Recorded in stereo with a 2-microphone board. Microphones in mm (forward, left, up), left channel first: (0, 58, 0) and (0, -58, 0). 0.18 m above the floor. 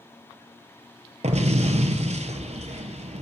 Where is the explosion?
70° right (ahead or behind), 0.8 m.